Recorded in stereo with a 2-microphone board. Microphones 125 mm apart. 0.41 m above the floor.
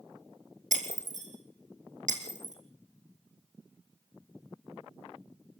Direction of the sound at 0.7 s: 85° right.